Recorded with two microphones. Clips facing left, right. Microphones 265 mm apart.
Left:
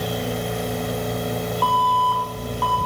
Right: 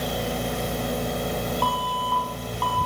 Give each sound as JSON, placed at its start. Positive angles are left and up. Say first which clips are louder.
{"t": 1.6, "sound": "an alarm", "louder": "left 4 dB", "side_deg": 0, "distance_m": 6.0}